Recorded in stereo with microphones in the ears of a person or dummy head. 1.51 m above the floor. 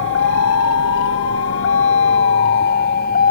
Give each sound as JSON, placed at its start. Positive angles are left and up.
{"t": 0.0, "sound": "a vehicle", "side_deg": 70}